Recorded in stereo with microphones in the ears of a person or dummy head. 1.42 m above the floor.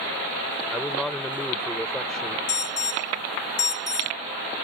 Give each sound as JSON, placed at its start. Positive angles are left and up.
{"t": 0.7, "sound": "a man speaking", "side_deg": 0}
{"t": 2.5, "sound": "an alarm", "side_deg": 90}